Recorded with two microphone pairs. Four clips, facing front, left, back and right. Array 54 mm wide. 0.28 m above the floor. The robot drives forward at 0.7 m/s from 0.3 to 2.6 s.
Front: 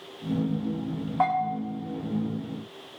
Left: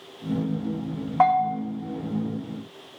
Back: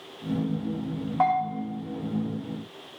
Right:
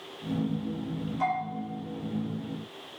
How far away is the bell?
About 5 m.